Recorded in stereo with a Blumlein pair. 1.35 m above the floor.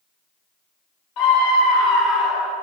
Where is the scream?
30° left, 1.4 m; by 2.5 s 5° right, 1.8 m.